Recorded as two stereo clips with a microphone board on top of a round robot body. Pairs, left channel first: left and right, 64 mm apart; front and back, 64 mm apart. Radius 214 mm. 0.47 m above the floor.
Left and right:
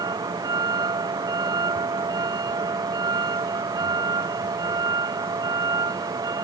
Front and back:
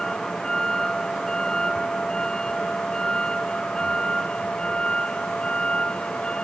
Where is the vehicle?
85° right; by 6.5 s 75° right.